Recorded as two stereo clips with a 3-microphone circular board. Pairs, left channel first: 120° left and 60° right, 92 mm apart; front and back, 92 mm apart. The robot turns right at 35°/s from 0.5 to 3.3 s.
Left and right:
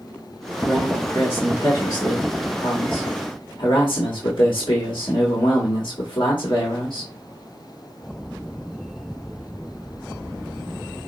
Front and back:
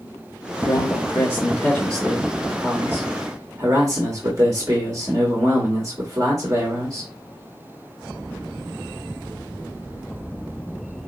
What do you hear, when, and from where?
0.6 s a man speaking: 40° left, 1.3 m; by 7.1 s 135° left, 1.3 m